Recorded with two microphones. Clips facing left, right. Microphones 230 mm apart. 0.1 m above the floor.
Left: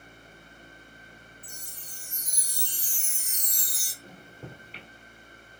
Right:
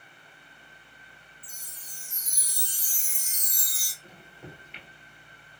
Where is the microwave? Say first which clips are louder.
Left 2 dB; 35° left (ahead or behind), 1.7 m.